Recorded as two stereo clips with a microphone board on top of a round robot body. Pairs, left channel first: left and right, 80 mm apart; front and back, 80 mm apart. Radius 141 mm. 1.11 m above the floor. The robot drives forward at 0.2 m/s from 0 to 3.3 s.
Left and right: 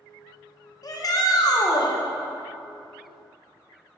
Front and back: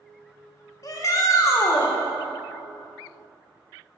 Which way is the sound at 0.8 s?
45° left.